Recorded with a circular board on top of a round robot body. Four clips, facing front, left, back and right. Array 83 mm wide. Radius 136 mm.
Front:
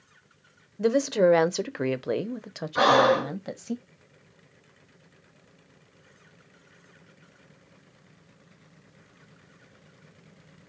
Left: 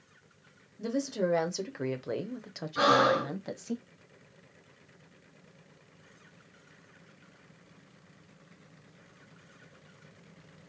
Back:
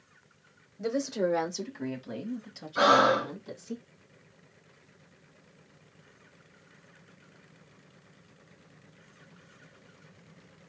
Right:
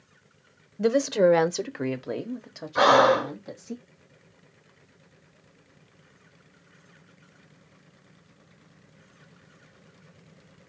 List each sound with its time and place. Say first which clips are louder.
0.8 s a woman speaking: right 10 dB, front 8 dB; 60° right, 1.0 m; by 3.8 s 25° left, 1.6 m
2.8 s breathing: right 6 dB, front 2 dB; 45° right, 0.9 m